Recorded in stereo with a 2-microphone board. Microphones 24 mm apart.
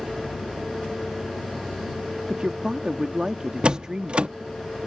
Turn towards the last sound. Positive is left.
turn(degrees=-45)  # may be behind; listen again after turning